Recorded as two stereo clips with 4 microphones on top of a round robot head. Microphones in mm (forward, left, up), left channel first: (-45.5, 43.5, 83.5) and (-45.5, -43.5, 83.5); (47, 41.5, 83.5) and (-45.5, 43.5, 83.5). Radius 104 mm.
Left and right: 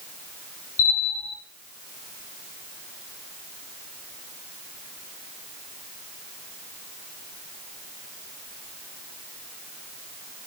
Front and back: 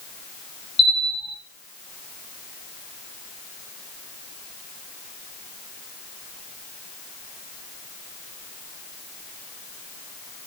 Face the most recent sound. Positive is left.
turn(degrees=30)